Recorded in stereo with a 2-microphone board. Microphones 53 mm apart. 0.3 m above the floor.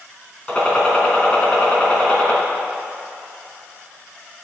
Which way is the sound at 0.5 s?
20° left (ahead or behind).